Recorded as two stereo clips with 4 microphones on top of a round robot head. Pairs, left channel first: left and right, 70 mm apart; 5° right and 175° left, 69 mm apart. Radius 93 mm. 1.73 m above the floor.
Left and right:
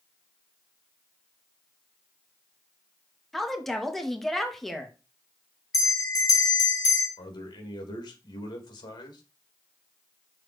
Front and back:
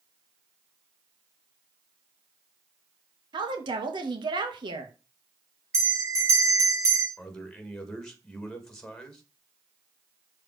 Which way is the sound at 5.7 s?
125° left.